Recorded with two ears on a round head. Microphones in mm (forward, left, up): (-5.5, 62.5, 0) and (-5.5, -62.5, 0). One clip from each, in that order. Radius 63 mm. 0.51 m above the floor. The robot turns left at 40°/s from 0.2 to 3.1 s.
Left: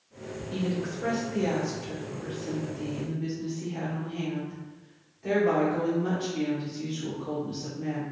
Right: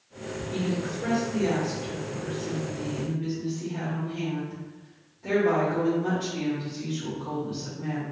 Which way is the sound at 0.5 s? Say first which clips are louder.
Right 1 dB; 150° left.